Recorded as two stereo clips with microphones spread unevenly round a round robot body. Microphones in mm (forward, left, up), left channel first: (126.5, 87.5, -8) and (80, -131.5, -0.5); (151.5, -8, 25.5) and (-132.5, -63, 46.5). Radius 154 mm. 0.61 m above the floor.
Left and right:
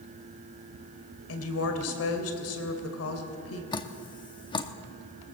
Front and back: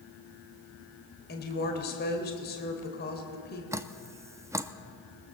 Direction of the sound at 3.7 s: 115° left.